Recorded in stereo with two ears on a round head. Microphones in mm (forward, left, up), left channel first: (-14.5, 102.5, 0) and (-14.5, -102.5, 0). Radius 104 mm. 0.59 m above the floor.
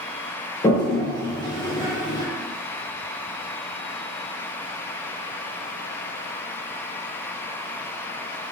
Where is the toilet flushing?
20° left (ahead or behind), 0.9 m.